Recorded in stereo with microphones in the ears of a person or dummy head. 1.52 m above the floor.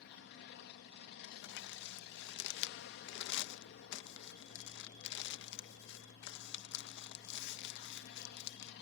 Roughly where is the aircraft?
Left.